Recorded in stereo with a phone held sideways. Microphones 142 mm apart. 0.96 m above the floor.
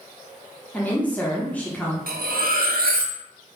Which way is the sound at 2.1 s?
80° right.